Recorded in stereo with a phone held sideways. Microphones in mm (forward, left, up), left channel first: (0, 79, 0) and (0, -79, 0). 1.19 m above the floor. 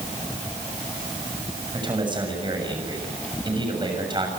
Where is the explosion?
I don't hear an explosion.